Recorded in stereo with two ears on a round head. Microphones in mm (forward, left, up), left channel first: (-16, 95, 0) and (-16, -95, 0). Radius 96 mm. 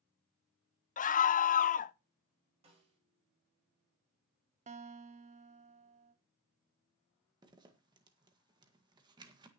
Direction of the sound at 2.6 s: 30° right (ahead or behind).